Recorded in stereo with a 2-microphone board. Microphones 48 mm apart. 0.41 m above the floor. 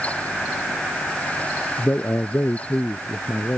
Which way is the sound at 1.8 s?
55° left (ahead or behind).